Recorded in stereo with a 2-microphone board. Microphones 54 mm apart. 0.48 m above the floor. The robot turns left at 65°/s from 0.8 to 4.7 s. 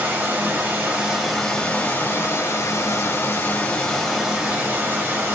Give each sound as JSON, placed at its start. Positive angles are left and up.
{"t": 0.0, "sound": "running water", "azimuth_deg": -140, "distance_m": 1.9}